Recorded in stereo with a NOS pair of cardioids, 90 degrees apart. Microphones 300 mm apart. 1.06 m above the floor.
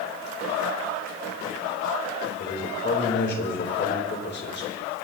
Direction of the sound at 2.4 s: 35° left.